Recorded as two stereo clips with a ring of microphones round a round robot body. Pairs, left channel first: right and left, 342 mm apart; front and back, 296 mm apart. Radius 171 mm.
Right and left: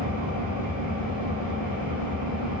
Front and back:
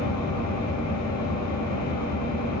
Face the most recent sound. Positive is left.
turn(degrees=25)